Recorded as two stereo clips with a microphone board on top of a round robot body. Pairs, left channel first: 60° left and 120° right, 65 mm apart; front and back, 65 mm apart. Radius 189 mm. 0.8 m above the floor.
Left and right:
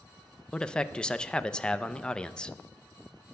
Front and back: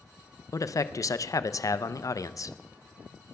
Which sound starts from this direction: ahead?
A man speaking, at 0.5 s.